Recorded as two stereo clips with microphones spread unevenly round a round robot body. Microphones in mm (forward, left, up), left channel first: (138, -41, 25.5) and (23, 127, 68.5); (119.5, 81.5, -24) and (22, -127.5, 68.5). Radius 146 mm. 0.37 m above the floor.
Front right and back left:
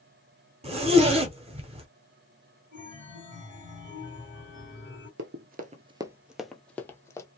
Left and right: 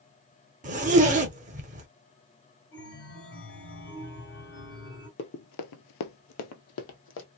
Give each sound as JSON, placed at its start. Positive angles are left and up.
{"t": 0.6, "sound": "a zipper", "azimuth_deg": 175, "distance_m": 0.8}
{"t": 2.7, "sound": "a chime", "azimuth_deg": 65, "distance_m": 2.0}
{"t": 5.2, "sound": "running footsteps", "azimuth_deg": 130, "distance_m": 0.6}